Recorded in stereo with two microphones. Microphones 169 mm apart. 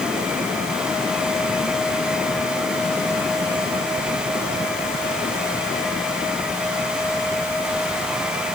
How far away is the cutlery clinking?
I don't hear cutlery clinking.